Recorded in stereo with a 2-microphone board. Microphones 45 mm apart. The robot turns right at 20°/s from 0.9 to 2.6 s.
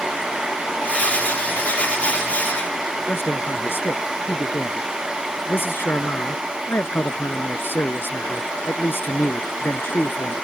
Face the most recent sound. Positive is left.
turn(degrees=55)  # may be behind; listen again after turning